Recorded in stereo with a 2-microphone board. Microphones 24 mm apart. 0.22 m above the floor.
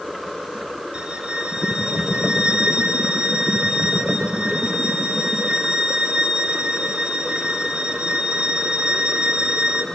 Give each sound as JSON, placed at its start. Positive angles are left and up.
{"t": 0.9, "sound": "a violin", "side_deg": -40, "distance_m": 1.2}